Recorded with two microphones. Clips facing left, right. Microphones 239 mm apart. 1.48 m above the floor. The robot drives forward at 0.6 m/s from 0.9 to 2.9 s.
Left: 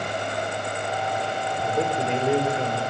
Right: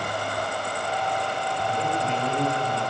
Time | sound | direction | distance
1.6 | a man speaking | 75° left (ahead or behind) | 5.5 m